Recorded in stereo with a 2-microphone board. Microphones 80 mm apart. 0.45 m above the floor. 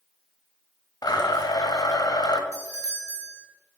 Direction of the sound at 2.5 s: 45° right (ahead or behind).